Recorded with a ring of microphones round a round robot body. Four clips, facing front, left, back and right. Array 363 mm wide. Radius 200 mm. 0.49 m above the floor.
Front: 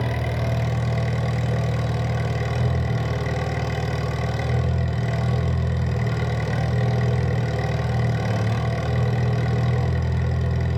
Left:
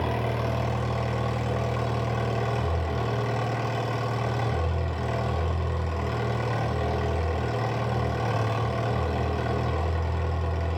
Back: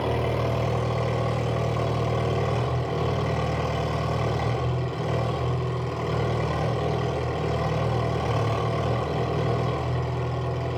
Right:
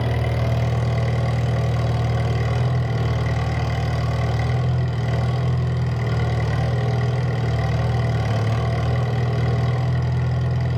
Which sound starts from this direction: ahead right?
An engine running, at 0.0 s.